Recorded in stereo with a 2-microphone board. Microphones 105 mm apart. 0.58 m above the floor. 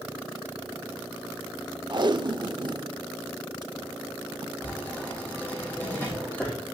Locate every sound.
1.9 s tape being pulled: 45° right (ahead or behind), 0.5 m
4.6 s writing: 20° left (ahead or behind), 6 m